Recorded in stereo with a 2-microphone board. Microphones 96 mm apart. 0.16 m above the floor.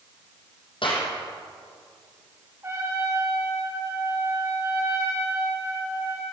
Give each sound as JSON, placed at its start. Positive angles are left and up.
{"t": 0.8, "sound": "a clap", "side_deg": 60, "distance_m": 5.5}
{"t": 2.6, "sound": "a trumpet", "side_deg": -25, "distance_m": 8.0}